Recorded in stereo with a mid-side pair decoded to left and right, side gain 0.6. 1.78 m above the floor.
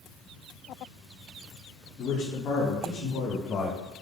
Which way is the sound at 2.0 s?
40° left.